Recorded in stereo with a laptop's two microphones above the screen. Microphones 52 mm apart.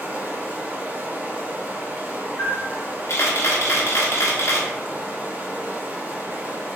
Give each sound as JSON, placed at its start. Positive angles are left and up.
{"t": 0.0, "sound": "running water", "side_deg": -35, "distance_m": 0.7}
{"t": 2.4, "sound": "a camera shutter", "side_deg": 65, "distance_m": 0.9}